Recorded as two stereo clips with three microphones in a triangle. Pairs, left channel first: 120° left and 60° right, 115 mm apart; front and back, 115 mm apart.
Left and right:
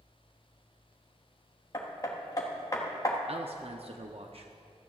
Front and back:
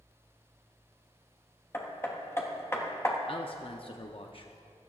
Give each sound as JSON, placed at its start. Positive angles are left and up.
{"t": 1.7, "sound": "hammering", "azimuth_deg": 65, "distance_m": 1.3}
{"t": 3.3, "sound": "a man speaking", "azimuth_deg": -35, "distance_m": 0.6}